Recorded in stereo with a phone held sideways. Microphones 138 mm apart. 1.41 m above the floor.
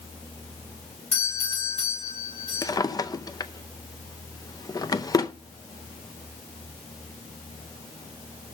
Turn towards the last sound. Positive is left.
turn(degrees=25)  # may be behind; listen again after turning